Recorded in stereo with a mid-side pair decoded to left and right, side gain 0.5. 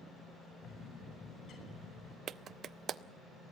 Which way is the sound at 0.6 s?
65° left.